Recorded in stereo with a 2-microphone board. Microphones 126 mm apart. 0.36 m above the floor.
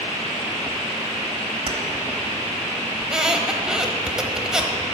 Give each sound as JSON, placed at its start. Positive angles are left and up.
{"t": 1.7, "sound": "keys jangling", "side_deg": -50, "distance_m": 1.2}
{"t": 3.0, "sound": "a squeak", "side_deg": -5, "distance_m": 0.8}